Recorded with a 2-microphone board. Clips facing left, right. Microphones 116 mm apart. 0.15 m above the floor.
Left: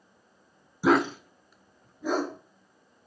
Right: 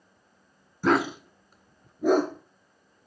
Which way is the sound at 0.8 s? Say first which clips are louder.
Left 1 dB; 10° left (ahead or behind).